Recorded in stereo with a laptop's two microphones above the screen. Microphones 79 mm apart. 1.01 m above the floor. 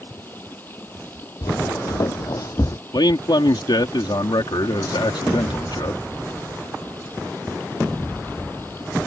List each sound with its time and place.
0.0 s running water: 25° left (ahead or behind)
1.4 s footsteps: 60° left (ahead or behind); by 2.8 s 45° left (ahead or behind)
2.9 s a man speaking: 70° left (ahead or behind)